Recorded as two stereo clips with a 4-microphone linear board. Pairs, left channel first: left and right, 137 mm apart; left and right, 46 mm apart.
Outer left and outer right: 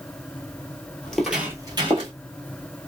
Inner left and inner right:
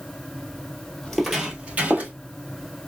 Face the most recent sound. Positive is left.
turn(degrees=-45)  # may be behind; listen again after turning